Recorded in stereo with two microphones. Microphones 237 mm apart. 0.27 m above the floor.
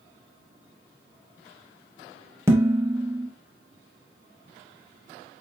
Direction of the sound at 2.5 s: 10° right (ahead or behind).